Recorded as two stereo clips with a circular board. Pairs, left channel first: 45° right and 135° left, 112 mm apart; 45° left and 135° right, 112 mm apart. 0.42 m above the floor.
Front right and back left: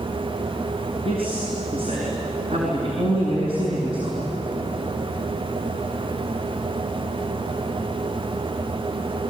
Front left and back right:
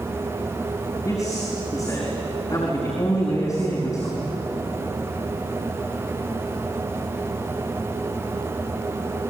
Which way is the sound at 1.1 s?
105° left.